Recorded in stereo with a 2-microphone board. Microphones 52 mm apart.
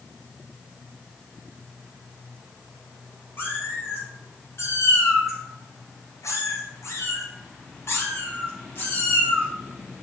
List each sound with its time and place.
3.4 s a cat meowing: 45° left (ahead or behind), 3 m; by 9.5 s 40° left (ahead or behind), 3 m